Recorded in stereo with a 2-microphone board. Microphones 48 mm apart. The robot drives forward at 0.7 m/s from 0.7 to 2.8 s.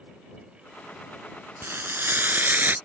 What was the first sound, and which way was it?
Frying, 50° right (ahead or behind).